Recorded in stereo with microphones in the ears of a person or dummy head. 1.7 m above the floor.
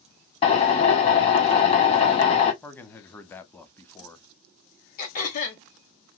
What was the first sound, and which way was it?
A drill, 35° left (ahead or behind).